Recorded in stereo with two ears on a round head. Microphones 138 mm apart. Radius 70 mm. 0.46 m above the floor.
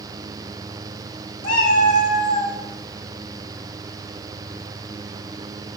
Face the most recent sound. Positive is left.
turn(degrees=40)  # may be behind; listen again after turning